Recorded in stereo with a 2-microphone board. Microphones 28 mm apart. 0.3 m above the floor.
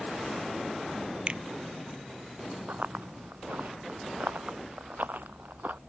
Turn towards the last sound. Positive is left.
turn(degrees=-85)